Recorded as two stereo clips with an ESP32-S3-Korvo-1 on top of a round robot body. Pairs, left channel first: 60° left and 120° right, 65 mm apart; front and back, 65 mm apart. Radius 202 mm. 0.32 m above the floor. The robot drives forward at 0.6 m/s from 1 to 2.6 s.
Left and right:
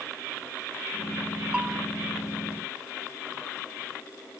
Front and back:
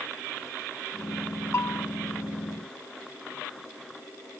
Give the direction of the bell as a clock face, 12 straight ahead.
2 o'clock.